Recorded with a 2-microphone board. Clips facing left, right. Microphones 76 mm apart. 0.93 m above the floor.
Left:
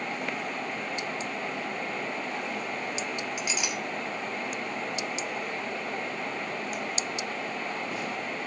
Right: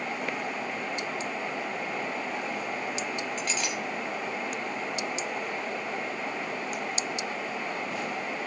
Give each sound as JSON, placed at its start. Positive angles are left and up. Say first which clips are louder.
{"t": 3.4, "sound": "a clink", "louder": "right 1 dB", "side_deg": 10, "distance_m": 3.0}